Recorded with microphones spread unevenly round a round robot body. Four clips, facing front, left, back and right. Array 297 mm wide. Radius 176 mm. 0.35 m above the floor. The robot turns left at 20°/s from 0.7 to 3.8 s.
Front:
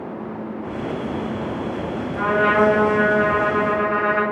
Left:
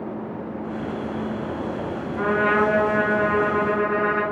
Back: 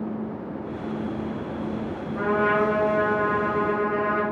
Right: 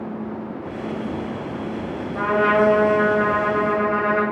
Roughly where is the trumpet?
Behind right.